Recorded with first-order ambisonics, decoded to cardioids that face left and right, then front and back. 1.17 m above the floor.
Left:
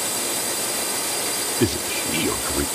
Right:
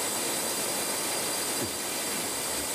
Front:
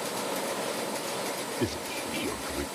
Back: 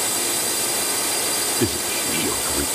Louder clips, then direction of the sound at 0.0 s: Left 5 dB, back 7 dB; 155° left.